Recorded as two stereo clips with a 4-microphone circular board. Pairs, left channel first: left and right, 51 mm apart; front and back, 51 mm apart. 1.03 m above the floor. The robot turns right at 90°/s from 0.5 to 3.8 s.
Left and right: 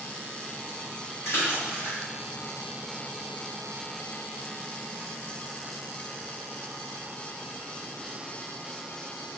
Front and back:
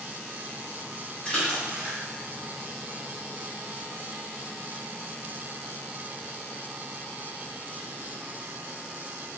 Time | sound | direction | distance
1.2 | a splash | 60° left | 1.4 m